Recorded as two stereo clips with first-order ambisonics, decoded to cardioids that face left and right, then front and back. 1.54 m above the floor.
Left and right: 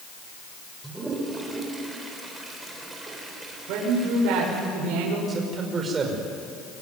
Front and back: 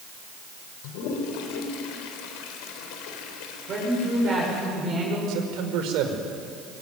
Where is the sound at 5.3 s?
155° right, 5 m.